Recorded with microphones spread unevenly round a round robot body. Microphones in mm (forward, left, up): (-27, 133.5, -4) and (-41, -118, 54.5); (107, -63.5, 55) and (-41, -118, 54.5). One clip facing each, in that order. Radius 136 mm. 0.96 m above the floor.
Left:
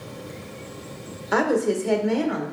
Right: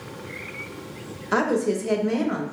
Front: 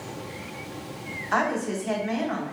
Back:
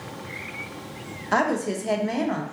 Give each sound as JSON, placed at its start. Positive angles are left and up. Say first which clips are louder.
{"t": 1.3, "sound": "a woman speaking", "louder": "left 1 dB, back 3 dB", "azimuth_deg": 170, "distance_m": 0.8}